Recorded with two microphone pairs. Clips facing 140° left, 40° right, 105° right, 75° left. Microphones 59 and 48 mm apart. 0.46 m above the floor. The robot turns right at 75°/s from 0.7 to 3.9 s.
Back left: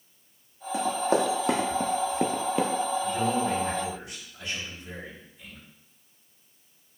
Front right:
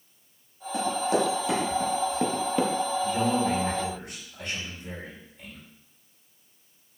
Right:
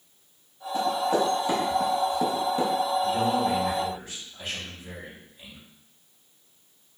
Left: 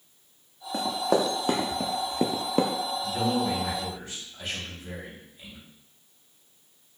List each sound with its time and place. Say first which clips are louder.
0.7 s running footsteps: back left 1 dB, right 1 dB; 65° left, 1.6 m
3.0 s a man speaking: front right 1 dB, right 3 dB; 110° right, 1.6 m; by 5.6 s 45° right, 1.6 m